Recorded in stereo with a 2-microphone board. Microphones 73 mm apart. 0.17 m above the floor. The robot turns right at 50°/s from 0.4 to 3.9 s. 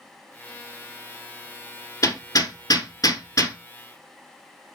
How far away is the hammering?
About 1.4 m.